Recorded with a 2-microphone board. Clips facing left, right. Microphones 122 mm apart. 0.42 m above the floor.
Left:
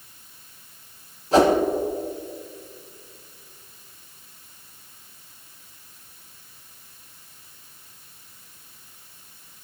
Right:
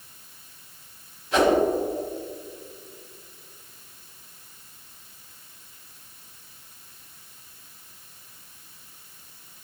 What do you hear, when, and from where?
1.3 s a whoosh: 35° left (ahead or behind), 0.9 m